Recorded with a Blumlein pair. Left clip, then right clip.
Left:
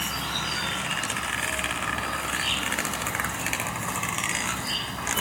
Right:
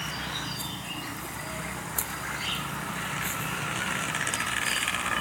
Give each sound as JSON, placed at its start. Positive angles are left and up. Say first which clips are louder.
{"t": 0.0, "sound": "an insect", "louder": "left 4 dB", "azimuth_deg": 15}